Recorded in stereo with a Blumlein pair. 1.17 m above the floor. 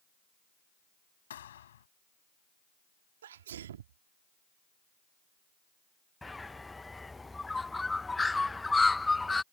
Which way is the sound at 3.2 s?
60° right.